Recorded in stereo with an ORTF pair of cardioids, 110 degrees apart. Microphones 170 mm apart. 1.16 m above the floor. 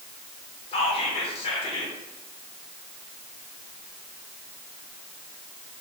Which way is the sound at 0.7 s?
35° left.